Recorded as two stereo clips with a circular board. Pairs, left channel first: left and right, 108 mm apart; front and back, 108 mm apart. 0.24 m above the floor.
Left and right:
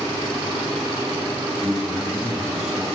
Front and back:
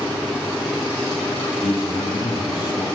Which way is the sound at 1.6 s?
Straight ahead.